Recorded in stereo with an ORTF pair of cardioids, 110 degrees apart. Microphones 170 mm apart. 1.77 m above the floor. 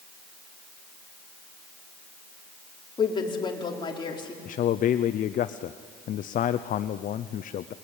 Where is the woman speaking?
25° left, 4.5 m.